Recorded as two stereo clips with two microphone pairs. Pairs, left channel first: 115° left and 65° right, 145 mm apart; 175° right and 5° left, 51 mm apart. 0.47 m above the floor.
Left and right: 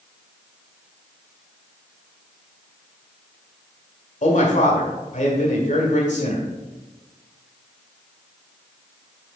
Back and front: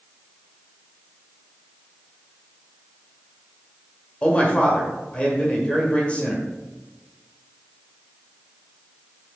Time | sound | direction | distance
4.2 | a man speaking | 120° left | 1.4 m